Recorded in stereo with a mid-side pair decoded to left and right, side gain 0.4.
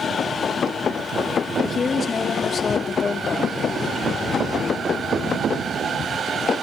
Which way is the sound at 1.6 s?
50° left.